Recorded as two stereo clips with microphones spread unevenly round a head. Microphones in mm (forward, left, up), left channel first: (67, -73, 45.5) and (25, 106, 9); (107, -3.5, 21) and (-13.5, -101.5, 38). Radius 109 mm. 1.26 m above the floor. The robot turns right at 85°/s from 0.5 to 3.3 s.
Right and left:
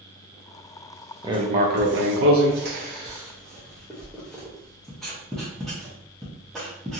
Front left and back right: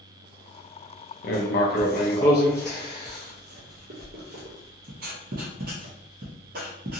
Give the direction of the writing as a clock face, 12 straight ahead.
11 o'clock.